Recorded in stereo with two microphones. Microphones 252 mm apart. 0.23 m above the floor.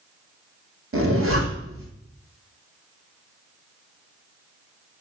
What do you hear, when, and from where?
0.9 s a zipper: 55° right (ahead or behind), 1.2 m